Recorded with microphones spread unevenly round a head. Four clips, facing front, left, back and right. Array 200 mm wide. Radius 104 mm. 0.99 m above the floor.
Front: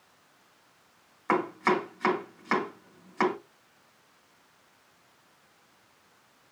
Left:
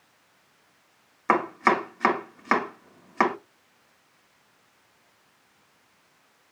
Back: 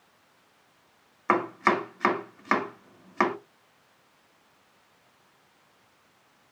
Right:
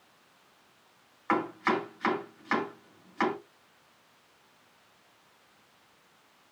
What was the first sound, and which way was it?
Chopping, 110° left.